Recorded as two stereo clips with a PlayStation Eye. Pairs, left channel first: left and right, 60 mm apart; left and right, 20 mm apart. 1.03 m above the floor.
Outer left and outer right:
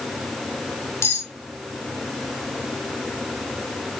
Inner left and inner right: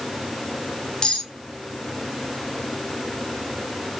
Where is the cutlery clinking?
50° left (ahead or behind), 2 m.